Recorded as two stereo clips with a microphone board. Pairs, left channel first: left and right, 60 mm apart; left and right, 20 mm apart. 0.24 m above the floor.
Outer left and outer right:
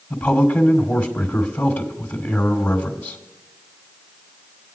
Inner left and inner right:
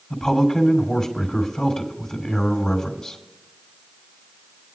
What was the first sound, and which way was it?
A man speaking, 25° left (ahead or behind).